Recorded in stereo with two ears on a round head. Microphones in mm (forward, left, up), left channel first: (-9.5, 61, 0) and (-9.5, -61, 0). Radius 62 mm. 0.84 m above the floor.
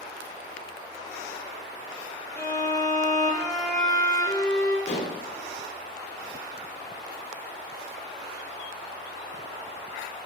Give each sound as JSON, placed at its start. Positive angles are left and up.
{"t": 2.4, "sound": "a violin", "side_deg": 25, "distance_m": 1.0}
{"t": 4.9, "sound": "dishes clattering", "side_deg": 45, "distance_m": 0.5}